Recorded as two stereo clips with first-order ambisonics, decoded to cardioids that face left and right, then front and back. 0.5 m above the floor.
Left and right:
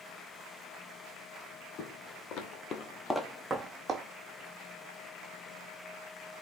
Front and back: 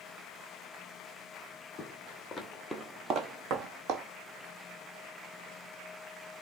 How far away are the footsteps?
About 1.2 m.